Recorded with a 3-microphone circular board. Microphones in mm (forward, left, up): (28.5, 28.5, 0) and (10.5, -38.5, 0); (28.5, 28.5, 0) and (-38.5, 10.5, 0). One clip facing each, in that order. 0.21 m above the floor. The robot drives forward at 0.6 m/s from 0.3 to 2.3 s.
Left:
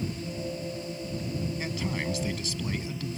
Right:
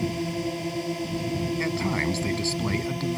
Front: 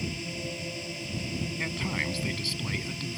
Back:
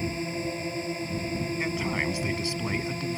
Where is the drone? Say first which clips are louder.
Right 6 dB, back 5 dB; 115° right.